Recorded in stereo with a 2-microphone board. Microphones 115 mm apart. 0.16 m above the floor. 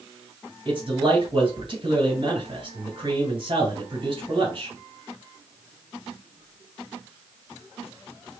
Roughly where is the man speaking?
Right.